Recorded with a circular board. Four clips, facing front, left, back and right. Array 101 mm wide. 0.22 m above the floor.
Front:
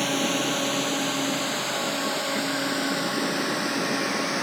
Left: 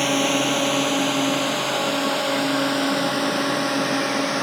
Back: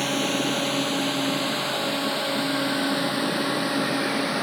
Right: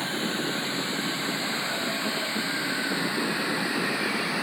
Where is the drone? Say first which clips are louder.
Left 9 dB, back 1 dB; 90° left; by 4.4 s 105° left.